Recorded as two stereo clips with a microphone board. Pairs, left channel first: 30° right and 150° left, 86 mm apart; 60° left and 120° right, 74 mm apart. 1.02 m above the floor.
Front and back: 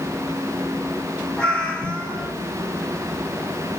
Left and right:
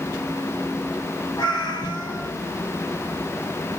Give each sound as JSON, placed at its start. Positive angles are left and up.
{"t": 1.4, "sound": "a cat meowing", "azimuth_deg": 50, "distance_m": 1.1}